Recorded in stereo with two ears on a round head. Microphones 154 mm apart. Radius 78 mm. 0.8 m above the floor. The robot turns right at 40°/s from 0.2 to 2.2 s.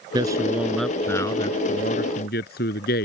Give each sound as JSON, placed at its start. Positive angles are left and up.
{"t": 0.1, "sound": "a man speaking", "azimuth_deg": -25}